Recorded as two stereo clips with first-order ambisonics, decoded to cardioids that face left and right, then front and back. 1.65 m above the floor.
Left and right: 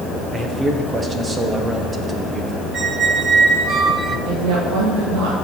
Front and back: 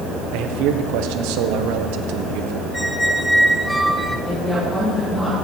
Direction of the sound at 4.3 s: 85° right.